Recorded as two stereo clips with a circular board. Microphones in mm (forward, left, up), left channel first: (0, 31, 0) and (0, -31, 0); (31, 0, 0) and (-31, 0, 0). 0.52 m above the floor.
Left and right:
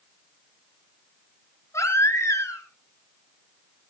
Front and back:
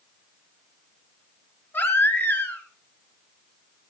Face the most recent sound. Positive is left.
turn(degrees=50)